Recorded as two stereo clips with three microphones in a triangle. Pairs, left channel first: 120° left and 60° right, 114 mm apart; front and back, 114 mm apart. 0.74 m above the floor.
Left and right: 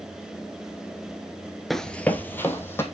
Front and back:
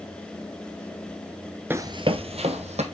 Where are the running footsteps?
150° right, 0.7 m; by 2.8 s 170° right, 2 m.